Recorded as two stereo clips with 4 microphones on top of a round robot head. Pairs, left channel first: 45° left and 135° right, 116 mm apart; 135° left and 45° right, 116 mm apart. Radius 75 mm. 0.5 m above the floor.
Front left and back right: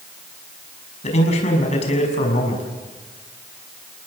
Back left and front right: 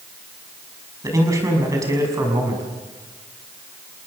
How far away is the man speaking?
About 6 m.